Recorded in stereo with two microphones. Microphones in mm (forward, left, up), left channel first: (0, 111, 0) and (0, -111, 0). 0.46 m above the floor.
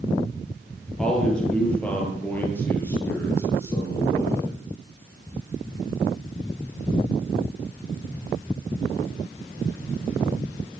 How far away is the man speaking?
About 9.5 m.